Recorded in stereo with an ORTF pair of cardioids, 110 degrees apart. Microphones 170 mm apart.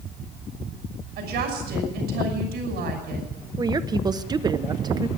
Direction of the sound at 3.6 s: 25° right.